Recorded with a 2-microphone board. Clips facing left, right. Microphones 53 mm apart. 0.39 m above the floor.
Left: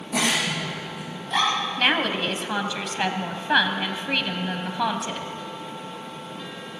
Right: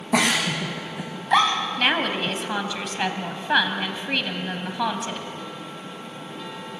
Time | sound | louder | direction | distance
0.1 | a giggle | right 3 dB | 75° right (ahead or behind) | 6 m
1.8 | a woman speaking | even | centre (ahead or behind) | 2.5 m